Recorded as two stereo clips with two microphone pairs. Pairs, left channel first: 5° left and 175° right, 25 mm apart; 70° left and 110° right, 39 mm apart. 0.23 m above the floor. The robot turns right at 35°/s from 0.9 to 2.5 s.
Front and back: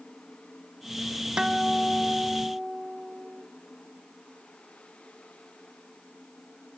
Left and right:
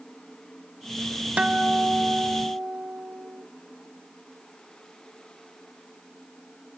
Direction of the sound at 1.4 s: 140° right.